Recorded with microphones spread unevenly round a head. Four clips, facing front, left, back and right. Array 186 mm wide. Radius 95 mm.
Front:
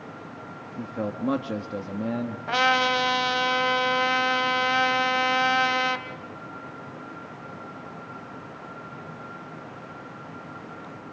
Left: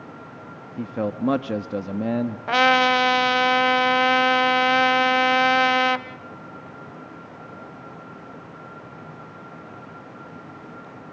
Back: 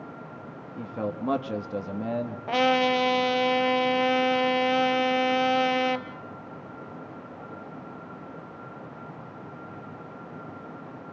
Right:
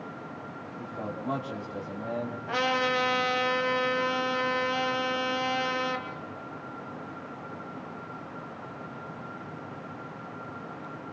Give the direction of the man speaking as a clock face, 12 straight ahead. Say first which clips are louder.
Left 12 dB, front 1 dB; 10 o'clock.